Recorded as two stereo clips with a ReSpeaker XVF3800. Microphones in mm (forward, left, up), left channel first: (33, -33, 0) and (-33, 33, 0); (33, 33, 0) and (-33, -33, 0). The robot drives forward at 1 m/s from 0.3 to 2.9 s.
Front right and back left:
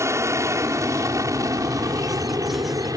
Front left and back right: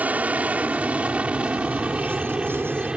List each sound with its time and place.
0.0 s an aircraft: 165° left; by 3.0 s 150° left